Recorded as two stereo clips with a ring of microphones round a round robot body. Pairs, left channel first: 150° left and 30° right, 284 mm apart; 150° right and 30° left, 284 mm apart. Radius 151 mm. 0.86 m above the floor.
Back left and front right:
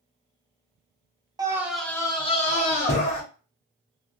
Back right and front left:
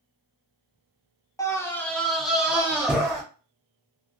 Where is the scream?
85° right, 0.7 m; by 3.2 s 110° left, 1.0 m.